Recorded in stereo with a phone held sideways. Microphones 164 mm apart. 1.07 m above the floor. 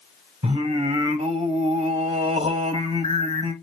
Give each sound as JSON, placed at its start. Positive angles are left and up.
{"t": 0.4, "sound": "singing", "side_deg": -40, "distance_m": 1.1}